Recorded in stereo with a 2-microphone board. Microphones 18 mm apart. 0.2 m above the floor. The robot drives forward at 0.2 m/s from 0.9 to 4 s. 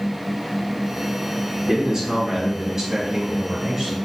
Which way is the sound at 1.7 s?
30° right (ahead or behind).